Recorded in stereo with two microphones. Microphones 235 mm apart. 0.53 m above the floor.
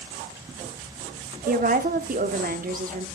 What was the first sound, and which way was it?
A woman speaking, 35° right (ahead or behind).